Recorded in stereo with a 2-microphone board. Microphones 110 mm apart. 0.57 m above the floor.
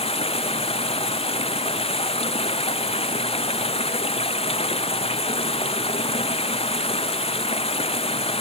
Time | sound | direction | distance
0.0 | running water | 60° left (ahead or behind) | ?